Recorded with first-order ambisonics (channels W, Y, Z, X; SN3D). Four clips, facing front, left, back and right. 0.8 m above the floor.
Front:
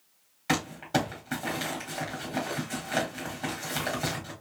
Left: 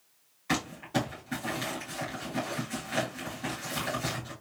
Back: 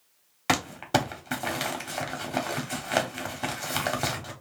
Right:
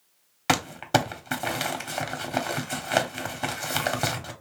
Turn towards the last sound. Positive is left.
turn(degrees=-120)